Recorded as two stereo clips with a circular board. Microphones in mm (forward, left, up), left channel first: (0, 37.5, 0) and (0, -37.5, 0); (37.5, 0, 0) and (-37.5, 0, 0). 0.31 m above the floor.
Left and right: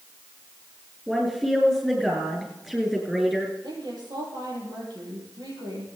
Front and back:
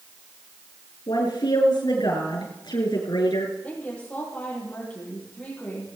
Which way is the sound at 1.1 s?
5° right.